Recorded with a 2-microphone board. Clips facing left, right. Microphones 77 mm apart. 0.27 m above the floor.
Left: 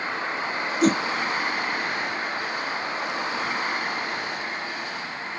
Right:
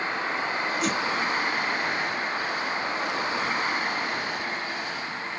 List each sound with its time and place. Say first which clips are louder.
0.8 s a whoosh: left 10 dB; 45° left (ahead or behind)